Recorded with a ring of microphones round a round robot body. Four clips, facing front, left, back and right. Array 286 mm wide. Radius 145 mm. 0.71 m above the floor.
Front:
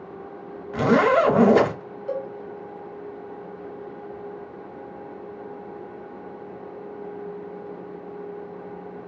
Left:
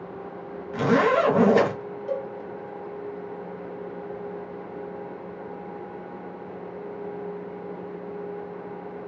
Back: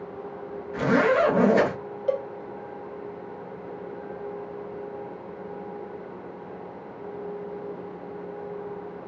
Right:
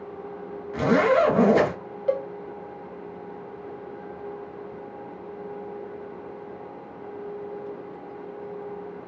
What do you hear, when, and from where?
0.7 s a zipper: 10° left, 1.0 m
2.1 s a cowbell: 130° right, 0.6 m